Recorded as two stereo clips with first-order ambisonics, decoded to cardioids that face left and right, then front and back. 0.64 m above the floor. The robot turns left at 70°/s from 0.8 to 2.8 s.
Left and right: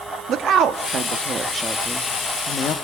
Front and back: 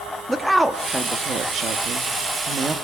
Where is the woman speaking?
105° right, 0.7 m; by 2.8 s 120° left, 0.7 m.